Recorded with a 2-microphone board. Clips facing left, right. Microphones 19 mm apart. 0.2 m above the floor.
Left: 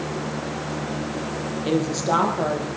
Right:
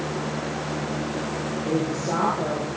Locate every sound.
1.6 s a woman speaking: 70° left (ahead or behind), 6 m; by 2.7 s 80° left, 7 m